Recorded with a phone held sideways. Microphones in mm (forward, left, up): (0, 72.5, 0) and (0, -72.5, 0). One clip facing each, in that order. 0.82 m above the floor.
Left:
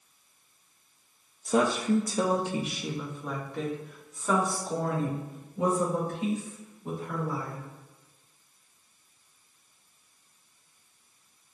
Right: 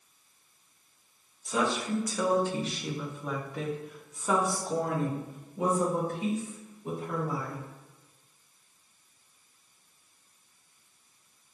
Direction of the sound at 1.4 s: 50° left (ahead or behind).